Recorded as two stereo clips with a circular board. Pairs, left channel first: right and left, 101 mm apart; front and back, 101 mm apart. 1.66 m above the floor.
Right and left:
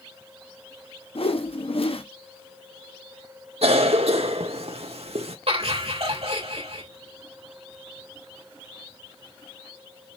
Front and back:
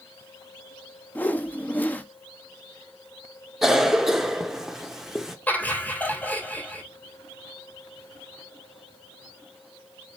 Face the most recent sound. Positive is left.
turn(degrees=75)